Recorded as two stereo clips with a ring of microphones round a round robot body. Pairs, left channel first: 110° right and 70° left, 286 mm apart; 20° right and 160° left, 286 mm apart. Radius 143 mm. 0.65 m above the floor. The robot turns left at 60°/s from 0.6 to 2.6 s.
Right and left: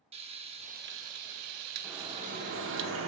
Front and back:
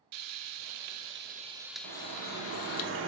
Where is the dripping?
155° left, 0.9 m; by 3.1 s 110° left, 0.9 m.